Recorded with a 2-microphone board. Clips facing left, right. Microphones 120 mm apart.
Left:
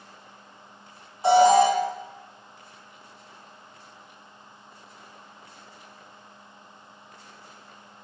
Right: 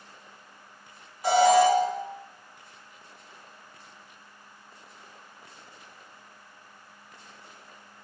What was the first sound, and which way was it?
An alarm, 30° left (ahead or behind).